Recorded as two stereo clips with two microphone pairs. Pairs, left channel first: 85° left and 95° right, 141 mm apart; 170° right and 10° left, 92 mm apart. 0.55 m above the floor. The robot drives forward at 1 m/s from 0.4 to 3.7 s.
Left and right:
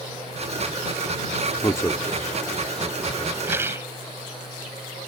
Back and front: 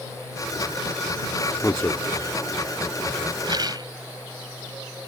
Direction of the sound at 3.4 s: 25° right.